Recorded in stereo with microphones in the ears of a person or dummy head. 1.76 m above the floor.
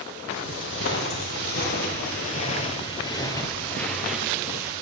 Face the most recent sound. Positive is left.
turn(degrees=-20)  # may be behind; listen again after turning